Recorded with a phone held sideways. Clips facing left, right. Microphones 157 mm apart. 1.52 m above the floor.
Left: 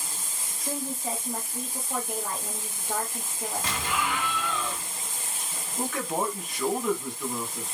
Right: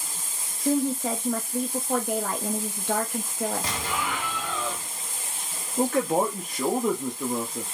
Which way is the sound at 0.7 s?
75° right (ahead or behind).